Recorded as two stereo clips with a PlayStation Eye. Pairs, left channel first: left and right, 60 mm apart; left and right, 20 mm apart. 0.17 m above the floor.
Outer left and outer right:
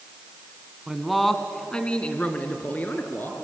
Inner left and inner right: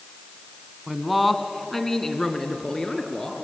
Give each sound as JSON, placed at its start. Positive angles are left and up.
{"t": 0.9, "sound": "a man speaking", "side_deg": -10, "distance_m": 1.6}